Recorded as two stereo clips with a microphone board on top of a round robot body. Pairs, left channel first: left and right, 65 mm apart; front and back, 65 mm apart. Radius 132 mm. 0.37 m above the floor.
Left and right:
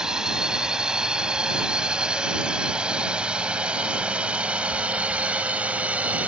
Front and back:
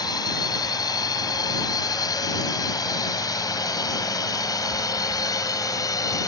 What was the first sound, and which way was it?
A drone, 10° right.